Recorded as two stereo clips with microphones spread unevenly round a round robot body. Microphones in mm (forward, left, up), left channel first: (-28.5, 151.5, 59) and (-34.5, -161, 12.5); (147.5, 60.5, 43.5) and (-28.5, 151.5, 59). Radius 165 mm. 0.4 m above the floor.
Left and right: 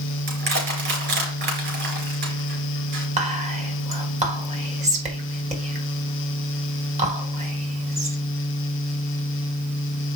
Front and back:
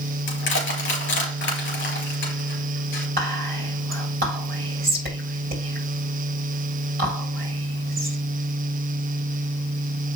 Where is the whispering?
155° right, 3.5 m.